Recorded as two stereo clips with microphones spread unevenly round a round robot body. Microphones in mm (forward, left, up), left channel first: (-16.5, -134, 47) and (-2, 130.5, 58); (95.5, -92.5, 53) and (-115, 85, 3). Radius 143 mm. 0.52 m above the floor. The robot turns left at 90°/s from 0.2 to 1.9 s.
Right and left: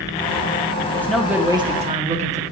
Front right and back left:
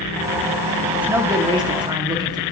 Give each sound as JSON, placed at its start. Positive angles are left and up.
{"t": 0.9, "sound": "a man speaking", "azimuth_deg": -155, "distance_m": 1.4}